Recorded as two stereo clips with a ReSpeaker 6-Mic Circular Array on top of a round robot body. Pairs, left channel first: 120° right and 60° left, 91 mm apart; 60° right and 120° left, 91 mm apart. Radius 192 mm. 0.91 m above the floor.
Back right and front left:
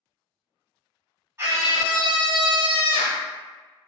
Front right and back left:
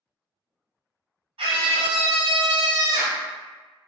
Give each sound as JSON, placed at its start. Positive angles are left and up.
{"t": 1.4, "sound": "a scream", "azimuth_deg": 125, "distance_m": 1.9}